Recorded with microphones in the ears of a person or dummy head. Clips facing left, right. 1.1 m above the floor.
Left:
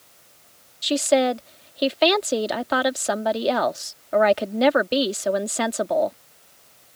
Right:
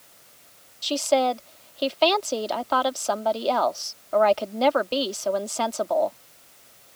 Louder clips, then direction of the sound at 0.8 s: Left 3 dB; 25° left (ahead or behind).